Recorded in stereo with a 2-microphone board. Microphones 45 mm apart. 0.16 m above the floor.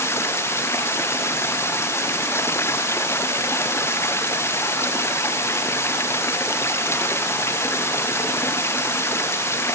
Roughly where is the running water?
Left.